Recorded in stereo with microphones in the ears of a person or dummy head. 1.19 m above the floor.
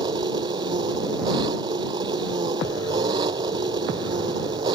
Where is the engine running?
20° right (ahead or behind).